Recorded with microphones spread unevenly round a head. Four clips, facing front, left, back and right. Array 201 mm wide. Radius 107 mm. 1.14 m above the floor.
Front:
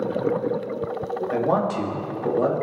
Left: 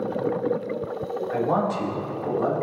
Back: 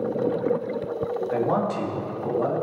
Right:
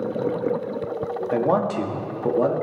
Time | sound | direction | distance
1.3 | a man speaking | 70° right | 2 m